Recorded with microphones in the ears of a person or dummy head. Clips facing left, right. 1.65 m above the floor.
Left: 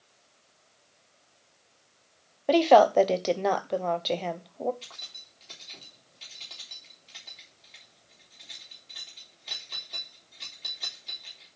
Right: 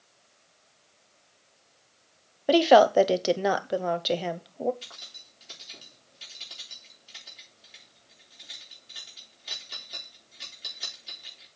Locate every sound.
2.5 s a woman speaking: 10° right (ahead or behind), 0.9 m
4.8 s keys jangling: 10° right (ahead or behind), 3.5 m